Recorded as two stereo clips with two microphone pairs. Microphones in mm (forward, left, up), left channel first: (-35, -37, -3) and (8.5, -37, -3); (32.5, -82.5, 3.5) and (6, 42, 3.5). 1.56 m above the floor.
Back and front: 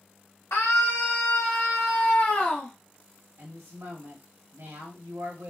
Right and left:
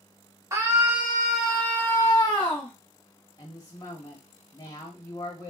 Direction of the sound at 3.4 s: 20° right.